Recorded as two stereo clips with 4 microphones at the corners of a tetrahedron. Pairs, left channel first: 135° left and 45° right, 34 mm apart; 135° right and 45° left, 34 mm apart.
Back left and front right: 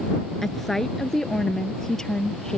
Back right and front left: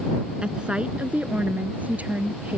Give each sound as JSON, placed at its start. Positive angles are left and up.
{"t": 0.4, "sound": "a woman speaking", "azimuth_deg": 60}